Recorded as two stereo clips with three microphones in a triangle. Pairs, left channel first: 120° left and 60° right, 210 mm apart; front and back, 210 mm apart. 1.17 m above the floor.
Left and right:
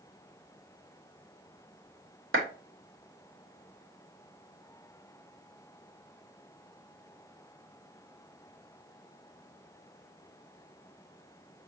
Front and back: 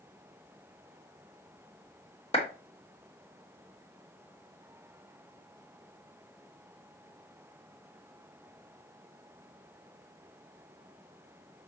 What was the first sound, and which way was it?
A clap, 60° right.